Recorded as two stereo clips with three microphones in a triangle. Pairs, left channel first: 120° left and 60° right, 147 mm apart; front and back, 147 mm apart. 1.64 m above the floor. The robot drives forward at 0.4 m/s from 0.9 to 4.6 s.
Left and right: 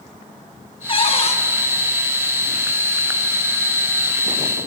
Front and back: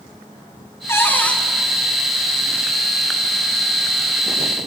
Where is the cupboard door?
70° left, 1.1 m; by 1.4 s 85° left, 1.1 m.